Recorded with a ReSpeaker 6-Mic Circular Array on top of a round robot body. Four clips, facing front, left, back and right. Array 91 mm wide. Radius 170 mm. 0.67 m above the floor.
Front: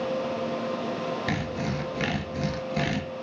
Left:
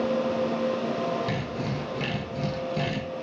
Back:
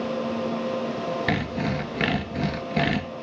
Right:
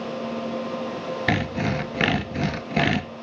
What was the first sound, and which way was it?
Sawing, 110° right.